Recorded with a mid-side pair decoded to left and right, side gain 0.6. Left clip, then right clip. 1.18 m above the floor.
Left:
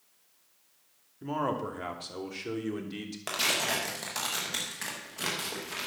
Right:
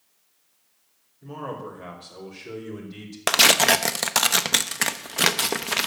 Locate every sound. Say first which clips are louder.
1.2 s a man speaking: left 3 dB; 65° left, 2.5 m; by 3.2 s 30° left, 3.5 m
3.3 s tearing paper: right 12 dB; 60° right, 0.8 m